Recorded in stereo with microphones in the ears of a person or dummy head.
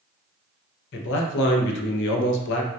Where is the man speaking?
60° left (ahead or behind), 0.5 m.